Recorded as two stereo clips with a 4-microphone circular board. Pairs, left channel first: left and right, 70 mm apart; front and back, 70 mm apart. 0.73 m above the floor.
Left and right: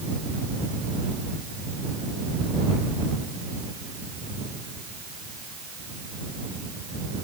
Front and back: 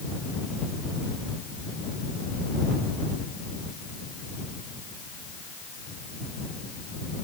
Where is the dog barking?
No dog barking in this recording.